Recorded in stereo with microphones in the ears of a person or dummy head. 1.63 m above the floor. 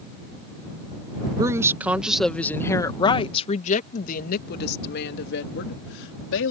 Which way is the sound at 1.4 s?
20° right (ahead or behind).